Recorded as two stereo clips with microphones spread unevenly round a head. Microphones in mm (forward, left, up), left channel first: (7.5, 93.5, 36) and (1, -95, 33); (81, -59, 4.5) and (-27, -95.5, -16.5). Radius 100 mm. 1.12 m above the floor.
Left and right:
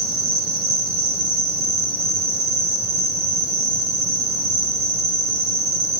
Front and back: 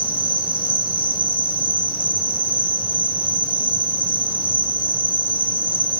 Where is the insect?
130° right, 3 m.